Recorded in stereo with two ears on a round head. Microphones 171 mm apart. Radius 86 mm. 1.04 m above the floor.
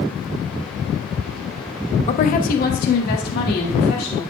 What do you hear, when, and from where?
2.1 s a woman speaking: 35° left (ahead or behind), 0.6 m; by 4.2 s 55° left (ahead or behind), 2.5 m